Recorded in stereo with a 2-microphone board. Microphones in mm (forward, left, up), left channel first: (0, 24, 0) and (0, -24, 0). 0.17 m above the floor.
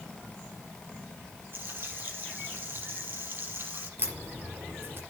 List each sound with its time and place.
1.5 s frying: 50° right (ahead or behind), 4.5 m
4.0 s a crack: 50° right (ahead or behind), 4.5 m